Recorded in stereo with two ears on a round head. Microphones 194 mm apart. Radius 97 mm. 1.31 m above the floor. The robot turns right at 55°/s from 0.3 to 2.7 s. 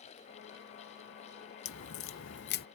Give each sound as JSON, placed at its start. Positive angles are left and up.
{"t": 1.6, "sound": "a crack", "azimuth_deg": 75}